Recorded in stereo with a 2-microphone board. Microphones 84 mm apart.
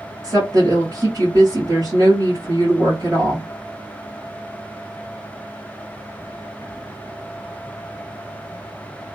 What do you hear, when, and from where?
0.2 s a woman speaking: 50° right (ahead or behind), 1.4 m